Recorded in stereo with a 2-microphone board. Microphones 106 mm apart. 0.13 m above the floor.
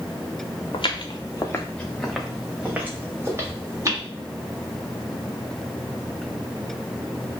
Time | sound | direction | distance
0.7 | footsteps | 60° left (ahead or behind) | 0.7 m